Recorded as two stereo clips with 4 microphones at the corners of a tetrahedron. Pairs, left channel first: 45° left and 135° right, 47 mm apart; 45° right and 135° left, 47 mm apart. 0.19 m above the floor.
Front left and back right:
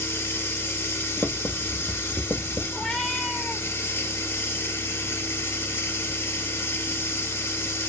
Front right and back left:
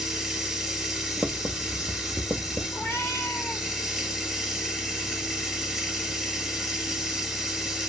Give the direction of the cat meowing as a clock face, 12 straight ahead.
1 o'clock.